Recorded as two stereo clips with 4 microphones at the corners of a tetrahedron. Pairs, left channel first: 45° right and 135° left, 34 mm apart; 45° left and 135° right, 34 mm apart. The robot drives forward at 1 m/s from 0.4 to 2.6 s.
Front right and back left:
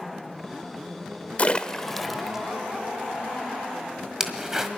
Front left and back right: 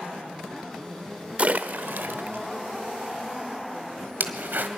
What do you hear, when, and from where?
1.4 s a splash: 90° right, 0.7 m; by 4.7 s 150° right, 1.4 m